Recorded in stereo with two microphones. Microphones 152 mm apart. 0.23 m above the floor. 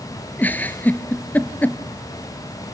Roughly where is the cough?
I don't hear a cough.